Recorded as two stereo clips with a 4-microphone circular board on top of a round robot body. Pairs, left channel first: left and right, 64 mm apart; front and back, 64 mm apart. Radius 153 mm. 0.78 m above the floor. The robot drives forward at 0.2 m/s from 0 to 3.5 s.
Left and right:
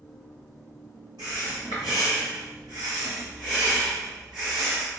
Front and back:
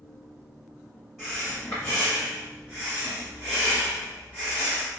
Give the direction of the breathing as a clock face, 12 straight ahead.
3 o'clock.